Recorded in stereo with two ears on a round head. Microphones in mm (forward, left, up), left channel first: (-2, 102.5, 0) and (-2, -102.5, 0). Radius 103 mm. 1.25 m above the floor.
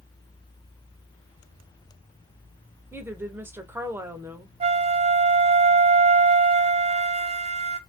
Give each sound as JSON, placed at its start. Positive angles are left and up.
{"t": 2.9, "sound": "a woman speaking", "side_deg": -10, "distance_m": 0.7}
{"t": 4.6, "sound": "a flute", "side_deg": -25, "distance_m": 0.5}